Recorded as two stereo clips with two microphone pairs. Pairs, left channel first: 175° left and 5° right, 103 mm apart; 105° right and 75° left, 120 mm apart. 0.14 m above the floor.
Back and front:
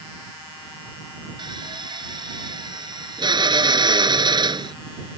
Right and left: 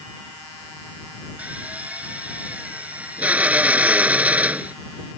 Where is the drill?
Straight ahead.